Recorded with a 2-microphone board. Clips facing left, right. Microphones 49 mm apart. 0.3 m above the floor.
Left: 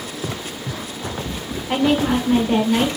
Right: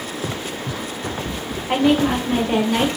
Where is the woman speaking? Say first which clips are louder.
Right 1 dB; 10° right (ahead or behind), 1.3 m.